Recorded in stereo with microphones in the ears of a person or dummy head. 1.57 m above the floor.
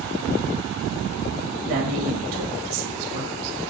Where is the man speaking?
75° right (ahead or behind), 2 m.